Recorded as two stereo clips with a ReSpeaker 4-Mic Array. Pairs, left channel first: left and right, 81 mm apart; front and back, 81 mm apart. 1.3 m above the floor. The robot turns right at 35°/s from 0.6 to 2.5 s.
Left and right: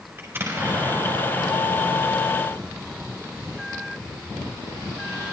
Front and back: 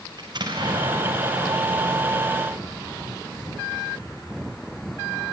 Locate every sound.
0.2 s an explosion: 150° right, 6.5 m; by 5.3 s 85° right, 6.5 m